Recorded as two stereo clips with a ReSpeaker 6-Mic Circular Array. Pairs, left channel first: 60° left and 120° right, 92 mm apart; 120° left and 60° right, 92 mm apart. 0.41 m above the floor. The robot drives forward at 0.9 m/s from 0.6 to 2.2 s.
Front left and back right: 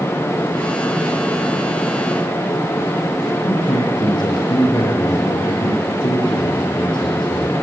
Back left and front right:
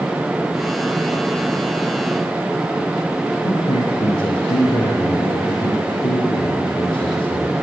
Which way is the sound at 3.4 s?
95° left.